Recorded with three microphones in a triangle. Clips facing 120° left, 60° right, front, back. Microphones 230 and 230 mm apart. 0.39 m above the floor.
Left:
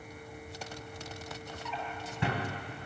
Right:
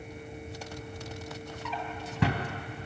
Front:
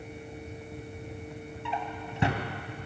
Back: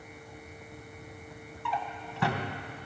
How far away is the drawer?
About 0.8 m.